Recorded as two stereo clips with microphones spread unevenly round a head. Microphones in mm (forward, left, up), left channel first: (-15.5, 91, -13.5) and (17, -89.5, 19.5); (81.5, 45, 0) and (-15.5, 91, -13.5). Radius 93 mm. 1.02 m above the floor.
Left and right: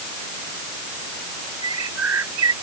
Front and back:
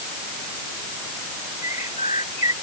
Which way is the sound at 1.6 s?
80° right.